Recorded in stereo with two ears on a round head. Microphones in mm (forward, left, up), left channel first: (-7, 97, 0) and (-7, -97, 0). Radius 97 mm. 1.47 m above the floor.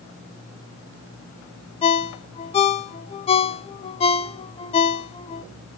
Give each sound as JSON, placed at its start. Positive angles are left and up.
{"t": 1.8, "sound": "a ringtone", "side_deg": 25, "distance_m": 0.5}